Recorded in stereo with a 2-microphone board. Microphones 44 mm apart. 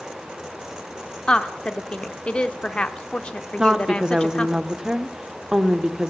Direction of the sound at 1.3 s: 25° left (ahead or behind).